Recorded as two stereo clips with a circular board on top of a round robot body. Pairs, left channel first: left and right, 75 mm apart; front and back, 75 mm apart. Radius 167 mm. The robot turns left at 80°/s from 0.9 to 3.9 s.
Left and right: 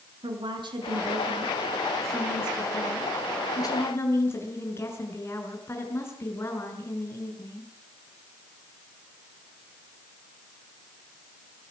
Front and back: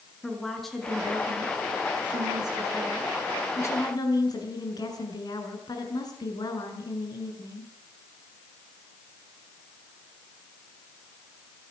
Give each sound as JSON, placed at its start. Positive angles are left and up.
{"t": 0.2, "sound": "a woman speaking", "azimuth_deg": -90, "distance_m": 6.0}